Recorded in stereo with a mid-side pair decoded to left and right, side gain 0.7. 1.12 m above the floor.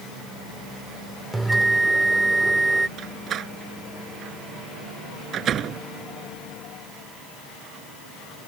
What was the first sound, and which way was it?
A bell, 10° right.